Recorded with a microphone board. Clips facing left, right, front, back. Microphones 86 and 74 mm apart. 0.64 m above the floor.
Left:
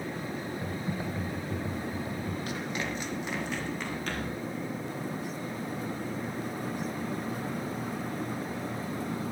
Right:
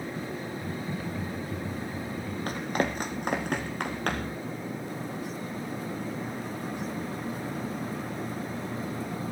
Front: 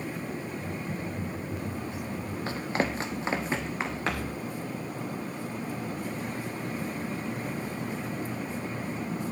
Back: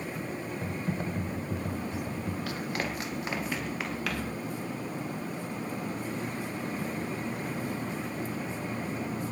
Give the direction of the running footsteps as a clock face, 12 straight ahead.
2 o'clock.